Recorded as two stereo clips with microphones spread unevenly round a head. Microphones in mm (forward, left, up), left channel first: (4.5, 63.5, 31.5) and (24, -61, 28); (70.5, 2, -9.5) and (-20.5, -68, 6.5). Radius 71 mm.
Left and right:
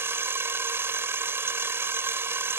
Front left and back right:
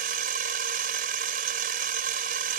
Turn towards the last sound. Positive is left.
turn(degrees=-155)